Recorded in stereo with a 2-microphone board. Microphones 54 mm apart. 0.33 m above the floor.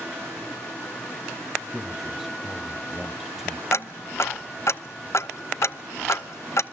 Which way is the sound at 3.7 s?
55° left (ahead or behind).